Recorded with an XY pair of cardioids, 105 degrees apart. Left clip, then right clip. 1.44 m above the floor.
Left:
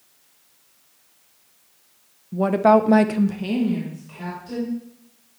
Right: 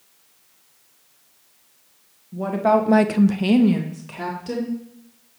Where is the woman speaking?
55° left, 1.2 m; by 4.7 s 80° right, 2.5 m.